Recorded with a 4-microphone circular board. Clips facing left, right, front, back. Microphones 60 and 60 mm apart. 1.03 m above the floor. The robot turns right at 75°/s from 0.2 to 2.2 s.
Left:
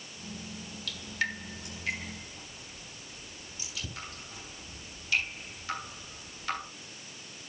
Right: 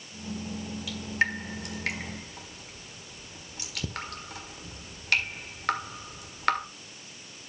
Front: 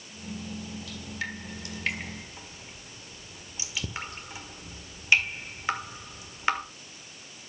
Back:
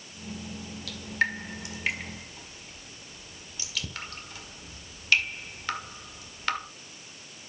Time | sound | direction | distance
0.9 | dripping | 170° right | 1.5 m